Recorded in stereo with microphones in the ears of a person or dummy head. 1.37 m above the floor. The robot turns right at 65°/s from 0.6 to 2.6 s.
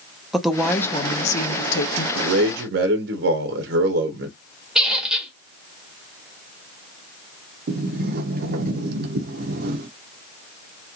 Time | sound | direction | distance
0.3 | a woman speaking | straight ahead | 0.7 m
2.1 | a man speaking | 85° right | 0.7 m
4.8 | a squeak | 5° right (ahead or behind) | 1.1 m
7.7 | a sliding door | 60° right (ahead or behind) | 0.6 m